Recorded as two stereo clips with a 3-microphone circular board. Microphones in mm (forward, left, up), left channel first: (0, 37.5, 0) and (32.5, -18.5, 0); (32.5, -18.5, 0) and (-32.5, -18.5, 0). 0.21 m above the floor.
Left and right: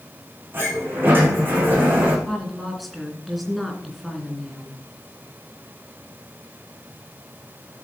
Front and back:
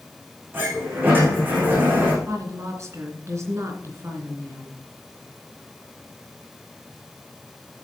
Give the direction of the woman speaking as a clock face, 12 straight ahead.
5 o'clock.